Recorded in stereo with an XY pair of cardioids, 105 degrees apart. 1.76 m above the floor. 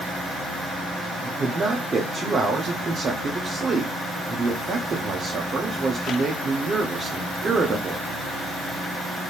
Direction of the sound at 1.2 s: 40° right.